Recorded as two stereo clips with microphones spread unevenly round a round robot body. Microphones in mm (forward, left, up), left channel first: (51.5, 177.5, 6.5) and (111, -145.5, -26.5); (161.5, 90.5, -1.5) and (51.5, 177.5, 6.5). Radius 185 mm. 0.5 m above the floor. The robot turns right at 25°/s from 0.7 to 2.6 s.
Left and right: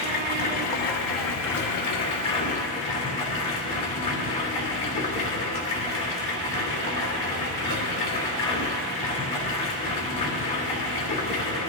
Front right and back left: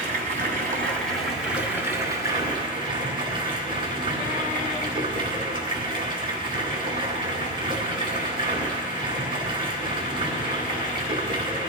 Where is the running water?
130° left, 1.7 m; by 11.7 s 175° left, 1.7 m.